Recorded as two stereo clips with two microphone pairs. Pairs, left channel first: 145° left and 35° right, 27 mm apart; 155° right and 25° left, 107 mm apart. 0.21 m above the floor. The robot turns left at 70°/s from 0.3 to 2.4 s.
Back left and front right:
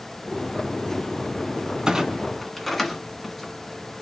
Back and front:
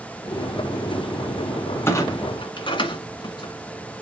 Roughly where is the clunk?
Right.